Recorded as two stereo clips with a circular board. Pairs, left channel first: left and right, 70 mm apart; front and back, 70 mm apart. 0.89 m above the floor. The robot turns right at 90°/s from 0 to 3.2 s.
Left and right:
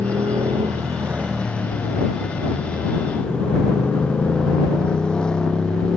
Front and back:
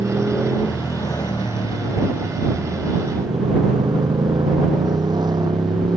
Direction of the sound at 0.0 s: 130° right.